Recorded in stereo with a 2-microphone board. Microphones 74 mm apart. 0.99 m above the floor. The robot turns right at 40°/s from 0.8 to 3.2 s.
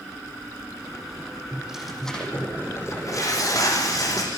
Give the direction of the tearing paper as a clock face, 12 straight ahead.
1 o'clock.